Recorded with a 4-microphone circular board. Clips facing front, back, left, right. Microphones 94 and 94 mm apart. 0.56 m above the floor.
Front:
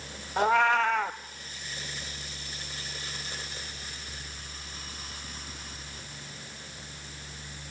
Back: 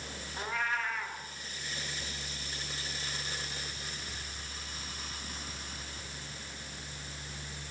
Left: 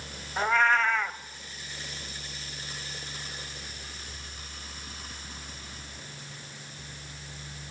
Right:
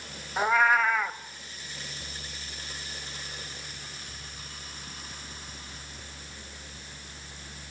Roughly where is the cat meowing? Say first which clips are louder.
Front 12 dB, right 1 dB; ahead.